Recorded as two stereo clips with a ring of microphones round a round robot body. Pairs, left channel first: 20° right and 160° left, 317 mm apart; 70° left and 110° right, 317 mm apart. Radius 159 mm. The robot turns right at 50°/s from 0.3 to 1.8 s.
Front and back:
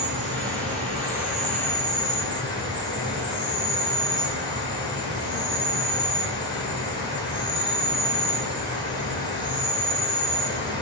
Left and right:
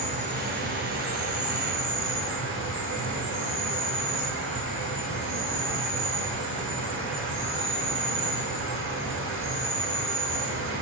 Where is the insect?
165° right, 1.6 m; by 10.8 s 90° right, 1.6 m.